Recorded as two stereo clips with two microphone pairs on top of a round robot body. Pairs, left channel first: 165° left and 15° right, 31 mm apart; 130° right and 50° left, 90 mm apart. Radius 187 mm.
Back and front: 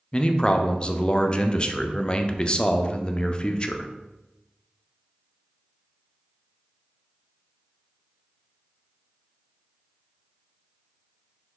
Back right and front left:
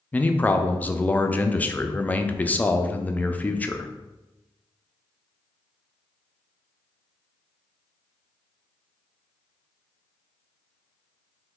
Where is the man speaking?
165° right, 0.5 m.